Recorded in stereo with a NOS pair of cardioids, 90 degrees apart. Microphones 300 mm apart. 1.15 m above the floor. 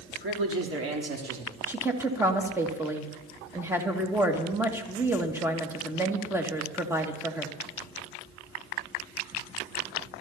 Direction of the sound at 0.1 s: 35° right.